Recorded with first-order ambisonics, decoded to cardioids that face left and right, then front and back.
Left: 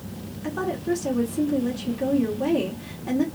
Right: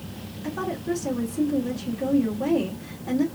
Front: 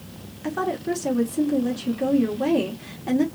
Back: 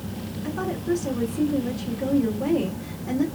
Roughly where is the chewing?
I don't hear chewing.